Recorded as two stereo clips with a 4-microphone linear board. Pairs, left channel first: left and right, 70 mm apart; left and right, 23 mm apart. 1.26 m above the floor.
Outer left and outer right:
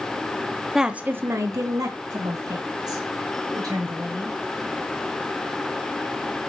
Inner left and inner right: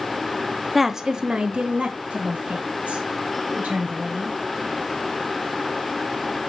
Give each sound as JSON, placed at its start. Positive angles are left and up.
{"t": 0.8, "sound": "a woman speaking", "side_deg": -5, "distance_m": 0.7}